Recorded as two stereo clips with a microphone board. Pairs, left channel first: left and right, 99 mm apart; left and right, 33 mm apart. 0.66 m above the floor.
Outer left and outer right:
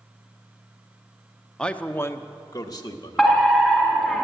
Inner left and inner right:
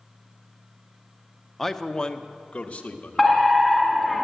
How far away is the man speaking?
About 0.7 m.